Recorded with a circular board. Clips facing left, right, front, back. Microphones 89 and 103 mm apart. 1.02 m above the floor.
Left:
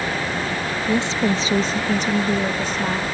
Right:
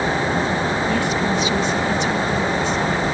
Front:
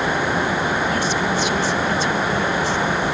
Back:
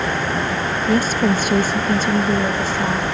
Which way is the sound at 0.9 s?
155° left.